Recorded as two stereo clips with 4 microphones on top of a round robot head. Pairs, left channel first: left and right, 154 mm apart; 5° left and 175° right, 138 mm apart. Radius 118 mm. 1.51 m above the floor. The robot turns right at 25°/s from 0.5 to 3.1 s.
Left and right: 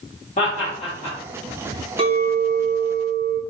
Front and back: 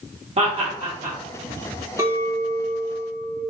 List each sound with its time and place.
0.4 s laughter: 145° left, 1.2 m; by 1.2 s 160° left, 1.2 m
2.0 s a clink: 115° right, 0.6 m; by 3.4 s 85° right, 0.6 m